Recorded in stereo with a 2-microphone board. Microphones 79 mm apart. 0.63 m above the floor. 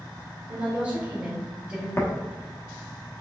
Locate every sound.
0.5 s a woman speaking: 15° right (ahead or behind), 2 m
2.0 s tapping: 30° left (ahead or behind), 1.0 m